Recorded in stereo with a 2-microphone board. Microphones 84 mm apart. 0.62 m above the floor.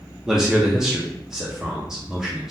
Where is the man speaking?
5° right (ahead or behind), 0.6 m.